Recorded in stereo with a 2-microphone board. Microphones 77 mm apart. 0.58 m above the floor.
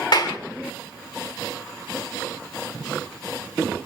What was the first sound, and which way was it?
A clap, 60° left (ahead or behind).